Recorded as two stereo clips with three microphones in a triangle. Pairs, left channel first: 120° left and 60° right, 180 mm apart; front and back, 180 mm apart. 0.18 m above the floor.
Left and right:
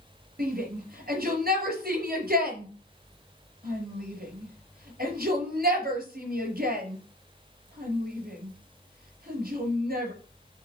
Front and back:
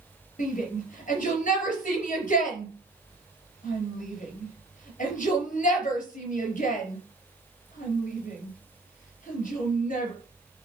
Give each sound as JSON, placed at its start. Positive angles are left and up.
{"t": 0.4, "sound": "a shout", "azimuth_deg": -40, "distance_m": 4.0}